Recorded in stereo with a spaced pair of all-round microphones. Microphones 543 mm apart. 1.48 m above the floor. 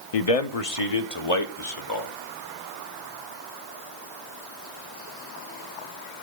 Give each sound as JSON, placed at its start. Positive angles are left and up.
{"t": 0.1, "sound": "a man speaking", "side_deg": 80, "distance_m": 0.6}